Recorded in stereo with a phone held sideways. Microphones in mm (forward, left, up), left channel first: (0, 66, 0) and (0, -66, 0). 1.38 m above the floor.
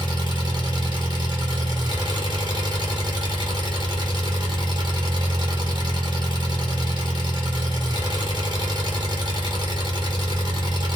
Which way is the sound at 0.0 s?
35° right (ahead or behind).